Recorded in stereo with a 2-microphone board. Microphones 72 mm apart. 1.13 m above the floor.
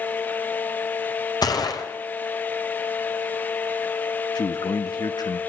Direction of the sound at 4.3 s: 70° left (ahead or behind).